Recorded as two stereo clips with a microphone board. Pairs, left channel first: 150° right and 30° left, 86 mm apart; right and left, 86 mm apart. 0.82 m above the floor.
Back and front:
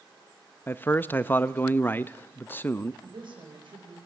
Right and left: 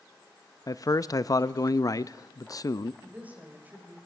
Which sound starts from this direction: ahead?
A woman speaking, at 3.0 s.